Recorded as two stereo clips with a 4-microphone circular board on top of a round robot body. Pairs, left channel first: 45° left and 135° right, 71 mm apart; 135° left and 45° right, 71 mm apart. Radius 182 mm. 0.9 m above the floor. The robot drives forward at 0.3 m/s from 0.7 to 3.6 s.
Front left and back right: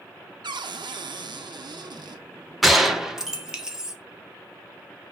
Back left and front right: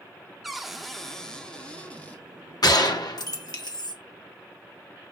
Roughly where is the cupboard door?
Behind right.